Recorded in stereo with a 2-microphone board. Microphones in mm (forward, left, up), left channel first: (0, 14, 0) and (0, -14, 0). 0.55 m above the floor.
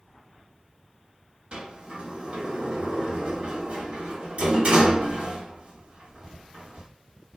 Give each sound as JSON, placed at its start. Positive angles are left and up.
{"t": 1.5, "sound": "a sliding door", "side_deg": -50, "distance_m": 1.0}